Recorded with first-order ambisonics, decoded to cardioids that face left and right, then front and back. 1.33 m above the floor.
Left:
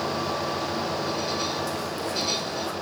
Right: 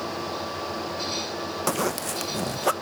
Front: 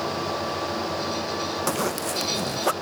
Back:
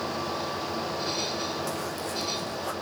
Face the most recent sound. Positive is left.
turn(degrees=-50)